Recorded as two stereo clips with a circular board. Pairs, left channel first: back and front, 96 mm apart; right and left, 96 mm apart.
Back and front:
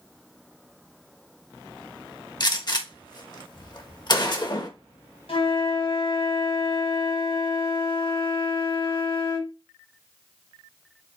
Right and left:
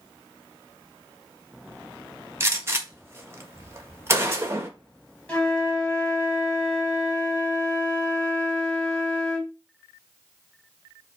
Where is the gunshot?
145° left, 1.3 m.